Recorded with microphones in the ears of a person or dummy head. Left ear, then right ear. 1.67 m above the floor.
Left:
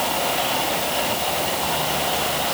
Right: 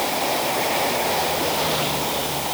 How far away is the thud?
I don't hear a thud.